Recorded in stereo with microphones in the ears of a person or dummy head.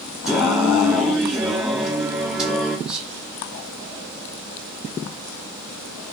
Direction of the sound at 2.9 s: 5° right (ahead or behind).